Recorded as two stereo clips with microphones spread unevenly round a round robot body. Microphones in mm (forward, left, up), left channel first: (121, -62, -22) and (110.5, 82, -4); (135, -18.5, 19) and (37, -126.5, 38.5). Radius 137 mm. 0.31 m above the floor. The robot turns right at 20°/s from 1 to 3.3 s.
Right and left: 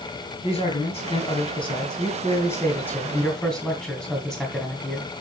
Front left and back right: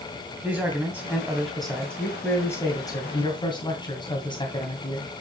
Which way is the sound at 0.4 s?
50° right.